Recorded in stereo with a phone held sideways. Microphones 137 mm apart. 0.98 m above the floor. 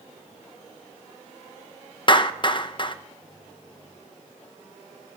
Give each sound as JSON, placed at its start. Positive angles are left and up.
{"t": 2.1, "sound": "a clap", "side_deg": 35, "distance_m": 0.7}